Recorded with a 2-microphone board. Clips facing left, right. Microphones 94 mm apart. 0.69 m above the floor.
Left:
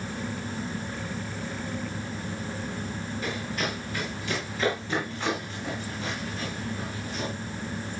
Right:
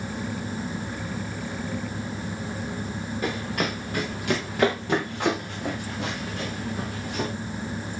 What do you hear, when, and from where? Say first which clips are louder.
3.2 s running footsteps: right 4 dB; 55° right (ahead or behind), 6 m; by 7.3 s 75° right (ahead or behind), 7 m